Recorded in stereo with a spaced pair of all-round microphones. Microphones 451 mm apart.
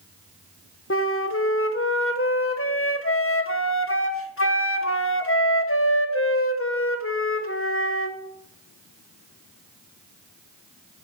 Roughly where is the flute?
Left.